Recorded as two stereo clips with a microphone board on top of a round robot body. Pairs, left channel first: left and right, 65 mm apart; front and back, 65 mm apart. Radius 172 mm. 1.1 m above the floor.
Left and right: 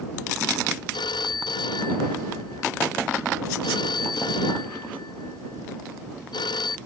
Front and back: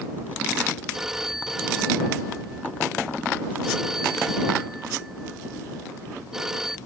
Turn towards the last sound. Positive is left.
turn(degrees=95)